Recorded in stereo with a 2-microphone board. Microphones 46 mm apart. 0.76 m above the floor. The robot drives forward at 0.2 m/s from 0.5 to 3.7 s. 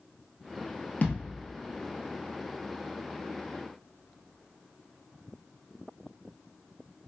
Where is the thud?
40° left (ahead or behind), 0.9 m.